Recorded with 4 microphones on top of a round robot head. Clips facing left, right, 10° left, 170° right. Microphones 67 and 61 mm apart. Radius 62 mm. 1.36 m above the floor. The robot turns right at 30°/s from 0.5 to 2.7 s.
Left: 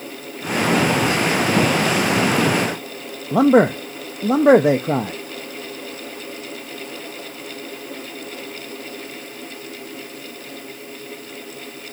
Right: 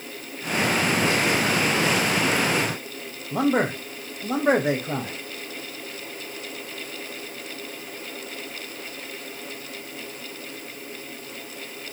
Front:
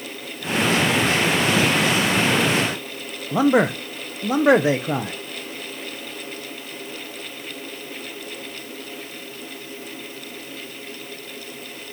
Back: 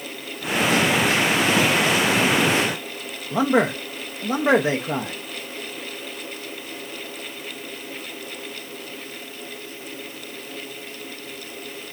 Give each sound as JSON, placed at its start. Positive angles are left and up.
{"t": 3.3, "sound": "a man speaking", "azimuth_deg": 95, "distance_m": 0.5}